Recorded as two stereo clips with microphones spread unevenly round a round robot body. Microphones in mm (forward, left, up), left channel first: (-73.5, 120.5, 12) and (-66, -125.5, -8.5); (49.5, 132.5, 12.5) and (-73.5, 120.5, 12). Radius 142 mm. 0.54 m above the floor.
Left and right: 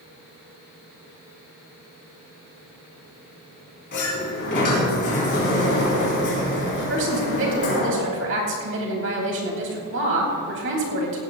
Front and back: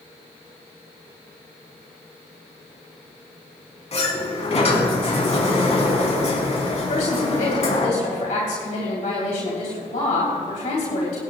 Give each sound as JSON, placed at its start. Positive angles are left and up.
{"t": 3.9, "sound": "a sliding door", "azimuth_deg": 35, "distance_m": 3.5}
{"t": 6.9, "sound": "a woman speaking", "azimuth_deg": -45, "distance_m": 3.0}